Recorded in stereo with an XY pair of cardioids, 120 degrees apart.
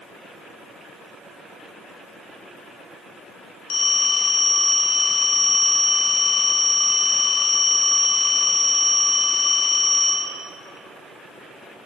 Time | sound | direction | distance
3.7 | a phone ringing | 70° left | 0.7 m